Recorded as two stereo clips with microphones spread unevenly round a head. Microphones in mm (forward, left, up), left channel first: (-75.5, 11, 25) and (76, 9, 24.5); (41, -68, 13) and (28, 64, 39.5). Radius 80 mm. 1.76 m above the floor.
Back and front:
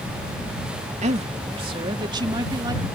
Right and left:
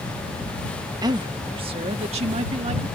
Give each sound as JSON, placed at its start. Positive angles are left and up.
{"t": 1.0, "sound": "a woman speaking", "azimuth_deg": 40}